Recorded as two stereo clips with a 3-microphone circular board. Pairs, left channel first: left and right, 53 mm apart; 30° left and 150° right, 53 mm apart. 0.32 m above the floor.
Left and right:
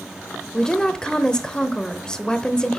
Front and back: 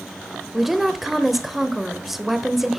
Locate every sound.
0.5 s a woman speaking: 130° left, 0.8 m